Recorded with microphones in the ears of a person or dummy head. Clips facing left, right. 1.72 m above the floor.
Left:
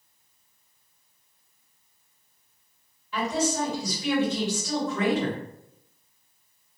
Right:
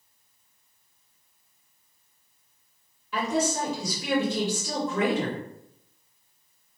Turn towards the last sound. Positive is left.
turn(degrees=-50)  # may be behind; listen again after turning